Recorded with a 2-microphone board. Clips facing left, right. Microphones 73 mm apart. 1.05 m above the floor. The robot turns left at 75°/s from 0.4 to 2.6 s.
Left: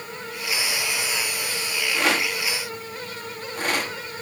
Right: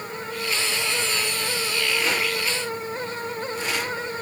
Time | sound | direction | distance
1.9 | a rattle | 70° left (ahead or behind) | 2.0 m